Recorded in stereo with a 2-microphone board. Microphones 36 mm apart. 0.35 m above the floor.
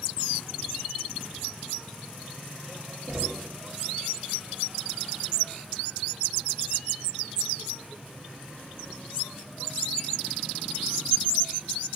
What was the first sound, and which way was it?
Knocking, 50° right (ahead or behind).